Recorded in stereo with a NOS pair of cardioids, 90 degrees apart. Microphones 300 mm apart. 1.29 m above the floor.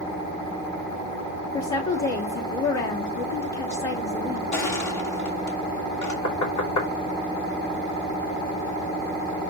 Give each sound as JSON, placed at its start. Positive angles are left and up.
{"t": 1.5, "sound": "a woman speaking", "azimuth_deg": 65, "distance_m": 3.0}
{"t": 4.5, "sound": "crushing", "azimuth_deg": 70, "distance_m": 3.5}
{"t": 6.2, "sound": "knocking", "azimuth_deg": 60, "distance_m": 4.0}